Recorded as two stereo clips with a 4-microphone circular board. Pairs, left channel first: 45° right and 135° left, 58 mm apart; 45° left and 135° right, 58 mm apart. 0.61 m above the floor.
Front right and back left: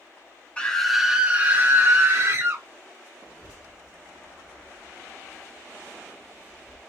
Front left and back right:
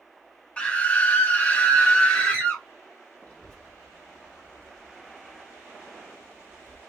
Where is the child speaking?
10° right, 0.9 m.